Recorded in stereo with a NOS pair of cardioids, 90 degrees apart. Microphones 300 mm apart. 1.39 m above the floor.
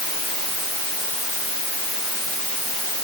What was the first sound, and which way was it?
Only background noise.